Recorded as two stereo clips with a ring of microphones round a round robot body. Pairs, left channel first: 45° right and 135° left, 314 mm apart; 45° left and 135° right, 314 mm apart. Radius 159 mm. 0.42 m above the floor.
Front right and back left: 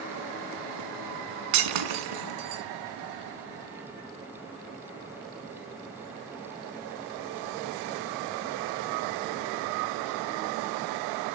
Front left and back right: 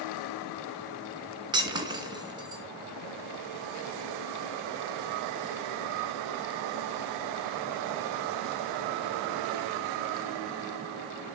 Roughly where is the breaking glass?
Behind left.